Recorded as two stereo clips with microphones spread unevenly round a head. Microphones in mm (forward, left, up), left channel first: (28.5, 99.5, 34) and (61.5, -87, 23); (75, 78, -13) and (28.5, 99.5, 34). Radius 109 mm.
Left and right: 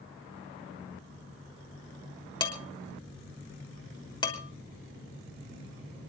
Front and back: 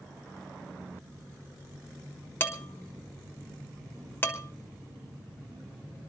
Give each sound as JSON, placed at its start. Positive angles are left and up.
{"t": 2.4, "sound": "dishes clattering", "azimuth_deg": 35, "distance_m": 3.5}